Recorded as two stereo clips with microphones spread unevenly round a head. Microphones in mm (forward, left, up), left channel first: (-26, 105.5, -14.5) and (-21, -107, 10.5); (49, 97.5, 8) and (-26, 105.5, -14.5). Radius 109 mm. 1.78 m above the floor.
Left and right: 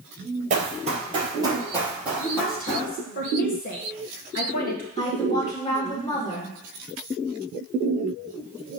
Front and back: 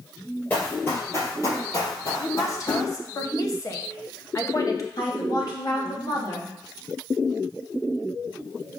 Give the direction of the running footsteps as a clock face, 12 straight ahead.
2 o'clock.